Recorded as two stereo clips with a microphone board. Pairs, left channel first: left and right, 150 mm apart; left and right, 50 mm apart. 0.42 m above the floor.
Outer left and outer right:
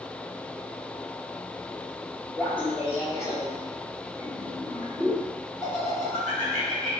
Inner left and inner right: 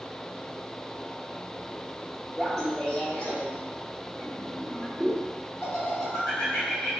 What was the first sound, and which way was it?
Laughter, 5° left (ahead or behind).